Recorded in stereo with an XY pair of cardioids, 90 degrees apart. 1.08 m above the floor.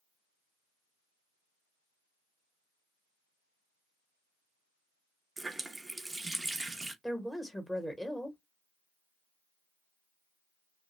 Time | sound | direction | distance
5.4 | a running tap | 15° right | 0.6 m
7.0 | a woman speaking | 5° left | 1.0 m